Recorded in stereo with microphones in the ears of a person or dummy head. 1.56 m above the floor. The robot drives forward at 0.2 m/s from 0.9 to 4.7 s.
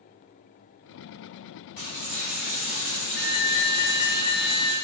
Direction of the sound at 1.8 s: 40° left (ahead or behind).